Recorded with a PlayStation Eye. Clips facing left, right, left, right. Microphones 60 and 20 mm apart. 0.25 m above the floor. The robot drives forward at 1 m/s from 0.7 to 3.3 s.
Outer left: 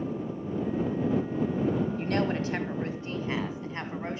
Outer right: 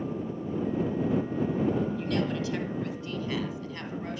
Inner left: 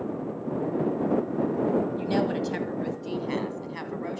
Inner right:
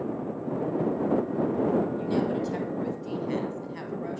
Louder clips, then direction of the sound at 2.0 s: Outer left 1 dB, inner left 1 dB; 40° left (ahead or behind).